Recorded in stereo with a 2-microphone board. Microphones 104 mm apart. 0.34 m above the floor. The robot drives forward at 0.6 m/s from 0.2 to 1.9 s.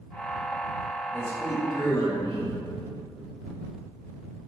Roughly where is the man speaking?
Left.